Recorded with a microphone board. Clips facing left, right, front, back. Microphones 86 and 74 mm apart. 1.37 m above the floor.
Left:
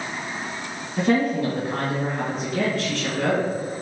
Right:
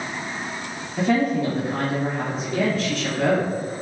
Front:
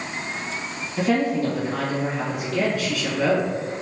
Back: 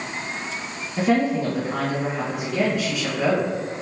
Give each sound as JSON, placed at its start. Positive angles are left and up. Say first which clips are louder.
{"t": 1.0, "sound": "a woman speaking", "louder": "even, back 1 dB", "azimuth_deg": 125, "distance_m": 1.6}